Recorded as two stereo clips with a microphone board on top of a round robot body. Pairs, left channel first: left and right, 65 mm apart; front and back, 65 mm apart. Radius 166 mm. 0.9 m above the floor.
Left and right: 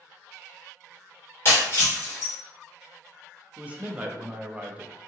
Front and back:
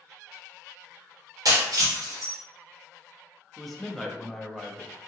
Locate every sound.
1.4 s breaking glass: 145° left, 1.3 m
3.6 s a man speaking: 85° right, 0.9 m